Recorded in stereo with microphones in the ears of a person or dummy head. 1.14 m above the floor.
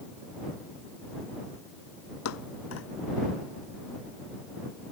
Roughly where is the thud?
Left.